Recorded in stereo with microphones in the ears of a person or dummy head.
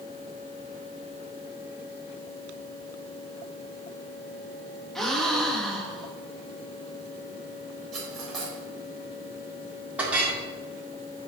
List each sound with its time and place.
5.0 s a gasp: 5° left (ahead or behind), 1.1 m
7.9 s cutlery clinking: 5° left (ahead or behind), 3.5 m
10.0 s a clink: 5° right (ahead or behind), 2 m